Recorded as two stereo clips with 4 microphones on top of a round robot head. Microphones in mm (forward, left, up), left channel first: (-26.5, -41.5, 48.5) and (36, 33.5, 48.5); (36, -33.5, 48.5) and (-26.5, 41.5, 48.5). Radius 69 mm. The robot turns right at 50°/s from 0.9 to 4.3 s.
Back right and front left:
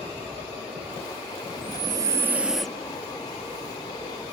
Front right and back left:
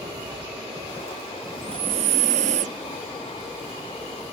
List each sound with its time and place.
1.6 s breathing: 90° left; by 2.8 s 150° left